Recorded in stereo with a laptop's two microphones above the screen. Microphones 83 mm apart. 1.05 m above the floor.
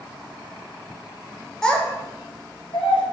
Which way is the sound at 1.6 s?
5° left (ahead or behind).